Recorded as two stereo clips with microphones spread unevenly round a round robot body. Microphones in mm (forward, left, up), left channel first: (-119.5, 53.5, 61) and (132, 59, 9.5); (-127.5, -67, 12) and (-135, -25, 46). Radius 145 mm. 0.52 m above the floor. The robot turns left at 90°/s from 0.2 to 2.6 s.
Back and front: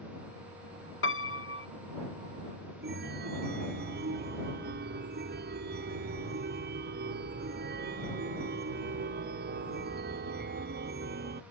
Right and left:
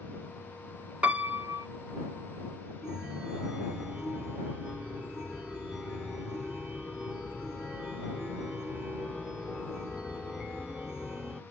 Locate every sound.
1.0 s a piano: 155° right; by 1.7 s 150° left
2.8 s a chime: 20° right